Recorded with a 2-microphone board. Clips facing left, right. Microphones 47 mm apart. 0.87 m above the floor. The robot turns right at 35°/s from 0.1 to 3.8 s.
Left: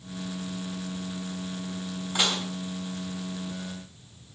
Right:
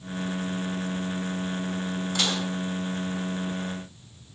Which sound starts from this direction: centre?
Dishes clattering, at 2.1 s.